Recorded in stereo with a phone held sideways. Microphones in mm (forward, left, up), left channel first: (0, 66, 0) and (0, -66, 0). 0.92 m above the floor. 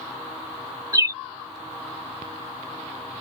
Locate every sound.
0.9 s a bird: 25° right (ahead or behind)